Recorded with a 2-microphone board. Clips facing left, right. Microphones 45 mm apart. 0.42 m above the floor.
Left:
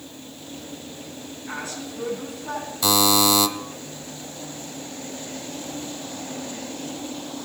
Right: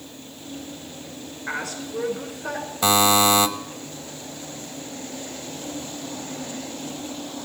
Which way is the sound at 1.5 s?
80° right.